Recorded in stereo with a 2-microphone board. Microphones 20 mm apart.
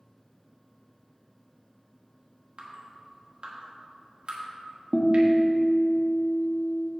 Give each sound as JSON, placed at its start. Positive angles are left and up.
{"t": 2.6, "sound": "dripping", "side_deg": -60, "distance_m": 1.5}
{"t": 4.9, "sound": "a guitar", "side_deg": 70, "distance_m": 1.0}